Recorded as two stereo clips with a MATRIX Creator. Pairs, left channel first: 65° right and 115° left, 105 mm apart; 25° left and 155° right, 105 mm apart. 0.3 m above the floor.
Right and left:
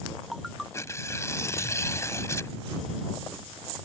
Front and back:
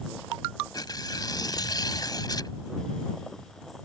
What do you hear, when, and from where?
0.7 s tearing paper: 10° right